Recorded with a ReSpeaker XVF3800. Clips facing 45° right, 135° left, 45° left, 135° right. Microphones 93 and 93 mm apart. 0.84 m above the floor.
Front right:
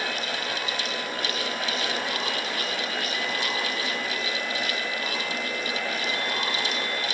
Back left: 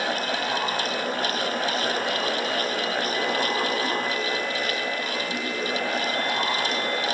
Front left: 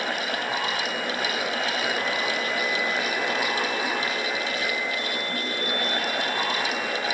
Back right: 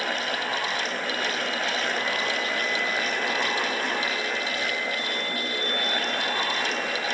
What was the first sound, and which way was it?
Only background noise.